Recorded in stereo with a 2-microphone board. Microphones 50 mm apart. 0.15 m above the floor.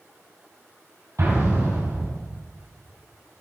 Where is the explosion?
70° right (ahead or behind), 4 m.